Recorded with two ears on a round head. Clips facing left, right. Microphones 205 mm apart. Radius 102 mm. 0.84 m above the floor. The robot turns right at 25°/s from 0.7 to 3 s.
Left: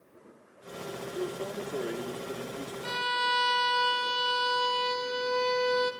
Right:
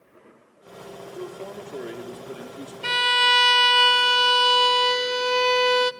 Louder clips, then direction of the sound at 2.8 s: Right 6 dB; 80° right.